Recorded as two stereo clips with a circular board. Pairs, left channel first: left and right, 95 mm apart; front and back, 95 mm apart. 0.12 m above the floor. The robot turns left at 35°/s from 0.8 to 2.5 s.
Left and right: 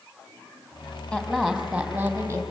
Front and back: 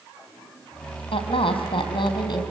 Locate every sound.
1.1 s a woman speaking: 15° left, 3.5 m; by 2.4 s 30° right, 3.5 m